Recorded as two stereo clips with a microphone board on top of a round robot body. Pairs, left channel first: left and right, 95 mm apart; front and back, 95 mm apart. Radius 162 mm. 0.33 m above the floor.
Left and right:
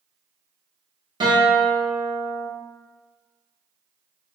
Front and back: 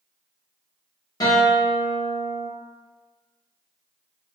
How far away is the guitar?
About 1.1 m.